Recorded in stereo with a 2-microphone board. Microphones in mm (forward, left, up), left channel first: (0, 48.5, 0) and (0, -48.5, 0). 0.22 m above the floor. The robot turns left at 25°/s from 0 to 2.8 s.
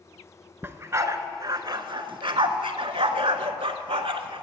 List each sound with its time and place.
0.6 s a dog barking: 25° right (ahead or behind), 0.5 m; by 4.4 s 75° right (ahead or behind), 0.5 m